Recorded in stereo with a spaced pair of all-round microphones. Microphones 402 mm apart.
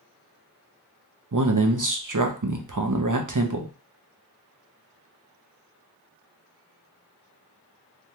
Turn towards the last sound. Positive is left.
turn(degrees=-50)  # may be behind; listen again after turning